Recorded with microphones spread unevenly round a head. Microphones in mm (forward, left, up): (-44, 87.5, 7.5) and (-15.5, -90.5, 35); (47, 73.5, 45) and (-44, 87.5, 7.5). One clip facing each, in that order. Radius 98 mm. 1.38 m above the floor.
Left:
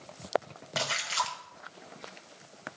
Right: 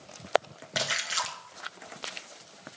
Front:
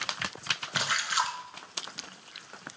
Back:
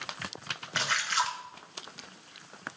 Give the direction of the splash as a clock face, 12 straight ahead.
1 o'clock.